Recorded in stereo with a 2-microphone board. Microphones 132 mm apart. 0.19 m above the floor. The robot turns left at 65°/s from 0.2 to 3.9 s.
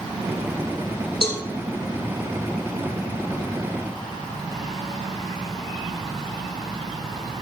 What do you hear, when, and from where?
1.2 s a cowbell: 45° left (ahead or behind), 1.3 m; by 1.4 s 40° left (ahead or behind), 1.3 m